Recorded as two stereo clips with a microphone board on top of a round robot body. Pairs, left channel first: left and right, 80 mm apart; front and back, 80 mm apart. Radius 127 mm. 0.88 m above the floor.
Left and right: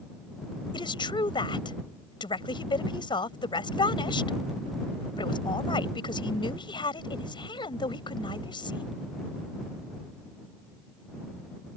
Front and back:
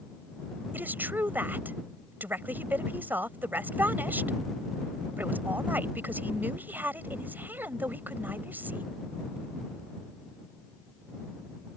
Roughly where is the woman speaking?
Left.